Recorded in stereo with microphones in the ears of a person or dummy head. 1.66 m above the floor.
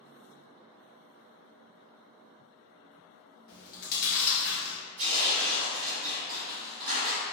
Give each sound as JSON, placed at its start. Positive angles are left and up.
{"t": 3.5, "sound": "chewing", "side_deg": 50, "distance_m": 0.8}
{"t": 5.0, "sound": "tearing paper", "side_deg": -35, "distance_m": 1.1}